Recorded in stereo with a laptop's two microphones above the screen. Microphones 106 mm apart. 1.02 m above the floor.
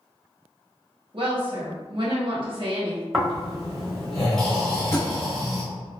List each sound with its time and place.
1.1 s a woman speaking: 50° right (ahead or behind), 0.7 m
3.1 s snoring: 5° left (ahead or behind), 0.9 m
4.9 s a thud: 25° left (ahead or behind), 1.0 m